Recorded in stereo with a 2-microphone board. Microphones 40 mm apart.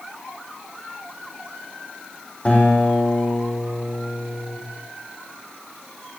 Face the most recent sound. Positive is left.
turn(degrees=35)  # may be behind; listen again after turning